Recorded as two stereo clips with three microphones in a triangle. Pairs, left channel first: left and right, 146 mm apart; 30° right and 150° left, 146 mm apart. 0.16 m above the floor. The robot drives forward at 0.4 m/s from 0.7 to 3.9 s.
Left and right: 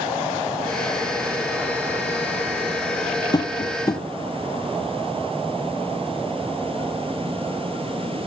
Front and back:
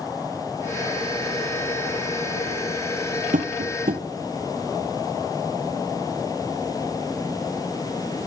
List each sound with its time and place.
3.3 s tapping: 150° left, 1.7 m